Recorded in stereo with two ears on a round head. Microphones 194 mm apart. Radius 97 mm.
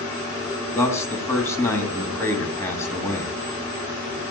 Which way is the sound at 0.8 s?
15° left (ahead or behind).